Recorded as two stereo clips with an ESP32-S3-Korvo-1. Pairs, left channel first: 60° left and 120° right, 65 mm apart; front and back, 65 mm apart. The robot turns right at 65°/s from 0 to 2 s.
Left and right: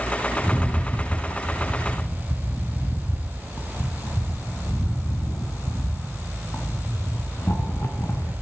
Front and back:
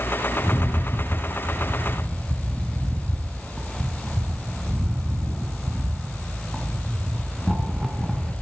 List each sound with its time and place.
0.4 s a rattle: 15° right, 1.9 m; by 8.3 s 90° left, 1.9 m